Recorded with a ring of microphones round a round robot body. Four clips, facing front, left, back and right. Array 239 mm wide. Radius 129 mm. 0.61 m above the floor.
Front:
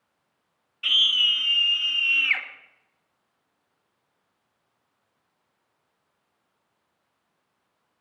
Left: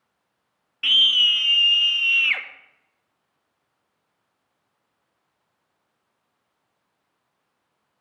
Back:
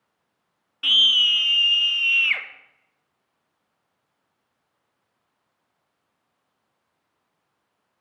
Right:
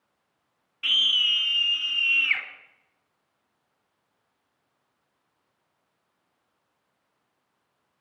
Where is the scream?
150° left, 1.4 m; by 2.4 s 130° left, 2.5 m.